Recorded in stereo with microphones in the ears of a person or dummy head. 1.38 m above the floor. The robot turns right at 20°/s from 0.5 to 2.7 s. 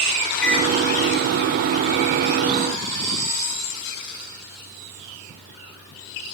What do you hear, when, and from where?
0.4 s a microwave: 5° left (ahead or behind), 3.5 m; by 0.7 s centre (ahead or behind), 3.5 m